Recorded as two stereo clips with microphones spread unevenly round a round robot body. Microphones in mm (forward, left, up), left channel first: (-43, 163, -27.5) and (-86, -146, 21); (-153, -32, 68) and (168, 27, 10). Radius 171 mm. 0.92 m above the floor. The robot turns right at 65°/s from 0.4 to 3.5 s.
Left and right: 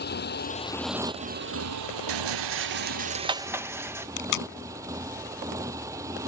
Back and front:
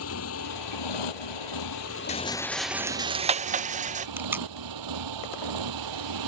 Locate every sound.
0.0 s a motorcycle: 140° left; by 6.3 s 15° right
2.1 s a rattle: 100° right; by 4.1 s 5° right
4.2 s tape being pulled: 100° left